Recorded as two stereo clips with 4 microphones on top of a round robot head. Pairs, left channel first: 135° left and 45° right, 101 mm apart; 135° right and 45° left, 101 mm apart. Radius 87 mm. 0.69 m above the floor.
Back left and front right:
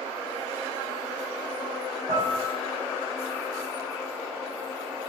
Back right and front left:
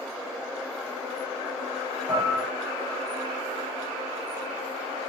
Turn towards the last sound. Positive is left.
turn(degrees=5)